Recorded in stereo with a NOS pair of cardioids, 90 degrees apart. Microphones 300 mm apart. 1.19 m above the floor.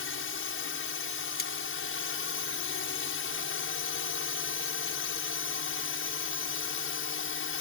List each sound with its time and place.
0.0 s a drone: 45° left
1.4 s cutlery clinking: 35° left